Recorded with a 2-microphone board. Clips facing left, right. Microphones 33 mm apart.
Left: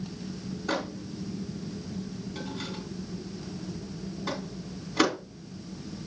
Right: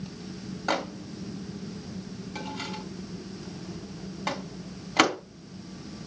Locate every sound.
0.7 s a microwave: 75° right (ahead or behind), 2 m